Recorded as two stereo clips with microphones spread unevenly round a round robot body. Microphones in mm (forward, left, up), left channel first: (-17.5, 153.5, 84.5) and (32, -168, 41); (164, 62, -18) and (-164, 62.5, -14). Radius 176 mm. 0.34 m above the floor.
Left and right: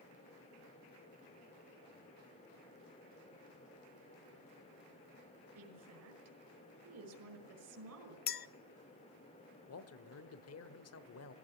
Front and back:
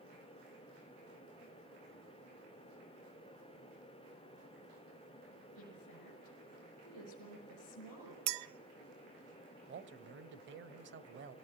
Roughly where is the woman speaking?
Ahead right.